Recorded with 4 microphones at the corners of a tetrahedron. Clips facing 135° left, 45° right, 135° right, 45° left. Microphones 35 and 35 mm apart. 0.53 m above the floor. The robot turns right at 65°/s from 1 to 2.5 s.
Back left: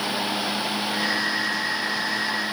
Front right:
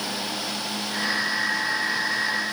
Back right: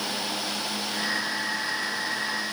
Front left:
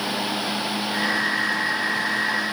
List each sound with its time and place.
Only background noise.